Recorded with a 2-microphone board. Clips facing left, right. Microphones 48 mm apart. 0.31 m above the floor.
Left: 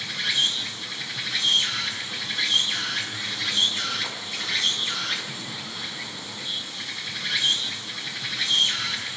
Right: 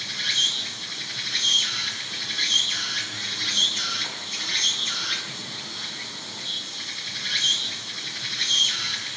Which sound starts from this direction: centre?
An insect, at 0.0 s.